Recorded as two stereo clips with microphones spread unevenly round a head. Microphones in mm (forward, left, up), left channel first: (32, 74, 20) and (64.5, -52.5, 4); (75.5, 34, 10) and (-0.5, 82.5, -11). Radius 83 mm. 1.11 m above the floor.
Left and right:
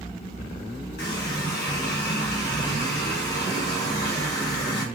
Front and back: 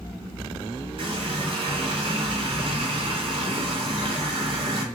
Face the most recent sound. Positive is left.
turn(degrees=120)